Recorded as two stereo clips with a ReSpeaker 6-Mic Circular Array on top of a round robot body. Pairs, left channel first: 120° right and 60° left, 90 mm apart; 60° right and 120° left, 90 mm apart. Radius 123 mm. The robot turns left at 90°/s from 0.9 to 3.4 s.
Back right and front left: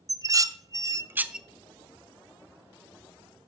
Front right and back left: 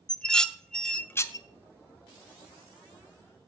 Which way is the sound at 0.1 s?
20° left.